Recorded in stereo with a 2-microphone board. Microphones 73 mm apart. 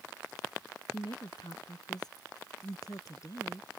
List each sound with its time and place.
0.9 s a woman speaking: 65° left (ahead or behind); by 3.7 s 45° left (ahead or behind)